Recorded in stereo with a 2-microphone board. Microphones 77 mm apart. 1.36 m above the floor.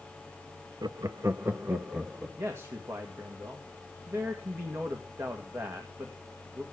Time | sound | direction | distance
0.8 | laughter | 65° right (ahead or behind) | 0.5 m
2.4 | a man speaking | 40° right (ahead or behind) | 1.8 m